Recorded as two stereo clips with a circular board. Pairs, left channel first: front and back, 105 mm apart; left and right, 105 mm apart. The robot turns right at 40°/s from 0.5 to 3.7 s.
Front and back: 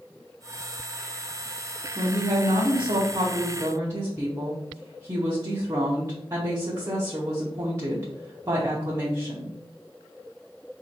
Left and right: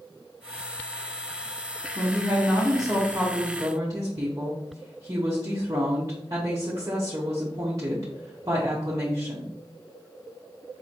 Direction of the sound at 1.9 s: 155° left.